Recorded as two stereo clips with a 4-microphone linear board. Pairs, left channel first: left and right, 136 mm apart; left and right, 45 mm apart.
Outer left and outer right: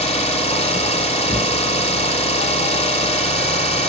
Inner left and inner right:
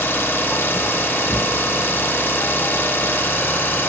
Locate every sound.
0.0 s an engine running: 50° left (ahead or behind), 0.7 m